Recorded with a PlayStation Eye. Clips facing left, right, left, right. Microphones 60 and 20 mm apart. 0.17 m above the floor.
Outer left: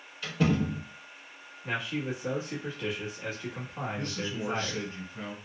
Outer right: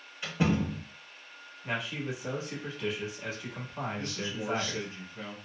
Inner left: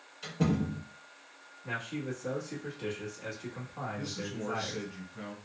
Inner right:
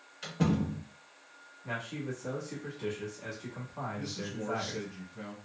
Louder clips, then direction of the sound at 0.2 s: Outer left 1 dB, even; 20° right (ahead or behind).